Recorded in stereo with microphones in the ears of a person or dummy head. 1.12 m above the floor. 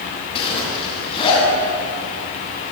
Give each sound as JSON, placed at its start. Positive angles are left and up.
{"t": 0.3, "sound": "a zipper", "side_deg": 30, "distance_m": 9.5}